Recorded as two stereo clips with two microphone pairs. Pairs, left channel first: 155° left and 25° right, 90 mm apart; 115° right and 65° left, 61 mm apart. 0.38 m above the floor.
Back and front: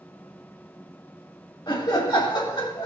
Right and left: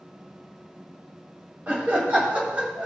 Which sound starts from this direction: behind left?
Laughter, at 1.7 s.